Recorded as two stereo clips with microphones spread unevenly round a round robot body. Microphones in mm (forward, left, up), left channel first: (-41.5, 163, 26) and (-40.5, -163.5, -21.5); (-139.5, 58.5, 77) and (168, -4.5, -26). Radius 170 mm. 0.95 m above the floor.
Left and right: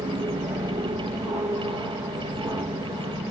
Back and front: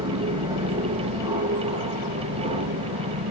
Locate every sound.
0.0 s an aircraft: 20° right; by 3.3 s 10° right